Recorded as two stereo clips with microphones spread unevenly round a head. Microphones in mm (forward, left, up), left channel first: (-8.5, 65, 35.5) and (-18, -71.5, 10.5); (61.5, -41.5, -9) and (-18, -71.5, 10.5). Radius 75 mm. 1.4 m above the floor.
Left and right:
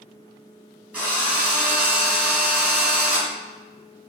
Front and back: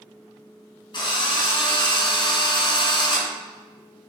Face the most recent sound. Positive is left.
turn(degrees=-10)